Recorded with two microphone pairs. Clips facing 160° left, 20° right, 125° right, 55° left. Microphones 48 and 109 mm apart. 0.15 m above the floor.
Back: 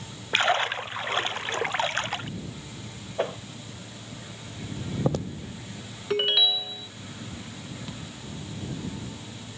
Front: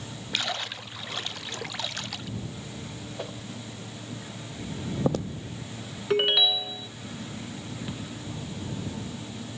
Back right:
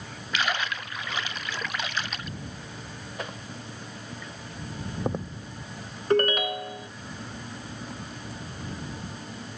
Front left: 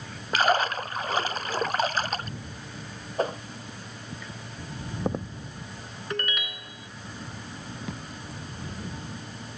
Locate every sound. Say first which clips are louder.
0.3 s a splash: back 9 dB, front left 6 dB; 105° left
3.2 s a whoosh: back 10 dB, front left 10 dB; 105° left
6.1 s a ringtone: front 1 dB, back right 12 dB; 105° right
7.9 s a thud: front 3 dB, front left 1 dB; 55° left